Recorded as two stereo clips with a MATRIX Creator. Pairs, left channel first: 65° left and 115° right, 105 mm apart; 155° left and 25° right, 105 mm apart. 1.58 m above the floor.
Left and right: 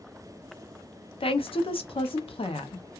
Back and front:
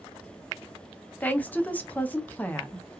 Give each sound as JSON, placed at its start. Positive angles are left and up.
{"t": 1.2, "sound": "a woman speaking", "azimuth_deg": 85, "distance_m": 0.6}